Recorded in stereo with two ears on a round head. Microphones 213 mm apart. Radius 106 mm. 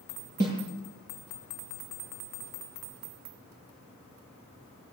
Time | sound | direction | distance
0.4 | a snare drum | 50° right (ahead or behind) | 9 m